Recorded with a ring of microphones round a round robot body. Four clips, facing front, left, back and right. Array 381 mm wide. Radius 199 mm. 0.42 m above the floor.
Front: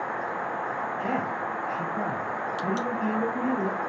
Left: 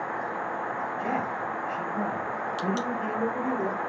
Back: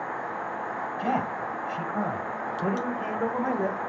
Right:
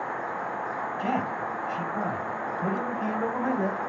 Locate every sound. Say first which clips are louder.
1.0 s a man speaking: right 3 dB, back 3 dB; 175° right, 3 m; by 3.8 s 145° right, 1.2 m